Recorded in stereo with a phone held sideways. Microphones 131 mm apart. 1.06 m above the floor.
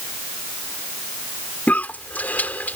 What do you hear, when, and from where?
1.7 s a cough: 15° left (ahead or behind)